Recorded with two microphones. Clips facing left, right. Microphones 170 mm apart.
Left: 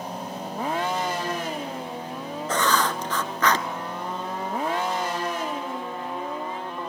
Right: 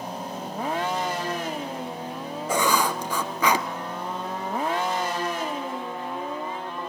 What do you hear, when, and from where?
2.5 s writing: 10° right (ahead or behind), 1.1 m